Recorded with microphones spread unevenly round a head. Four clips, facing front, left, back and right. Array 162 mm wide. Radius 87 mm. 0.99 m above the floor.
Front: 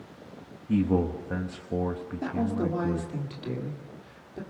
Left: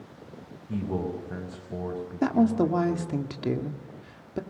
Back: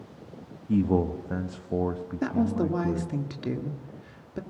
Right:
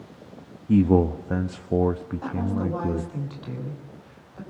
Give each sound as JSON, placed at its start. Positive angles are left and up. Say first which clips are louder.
{"t": 0.7, "sound": "a man speaking", "louder": "right 12 dB, back 1 dB", "azimuth_deg": -75, "distance_m": 1.0}
{"t": 2.2, "sound": "a woman speaking", "louder": "left 6 dB, back 3 dB", "azimuth_deg": 115, "distance_m": 1.9}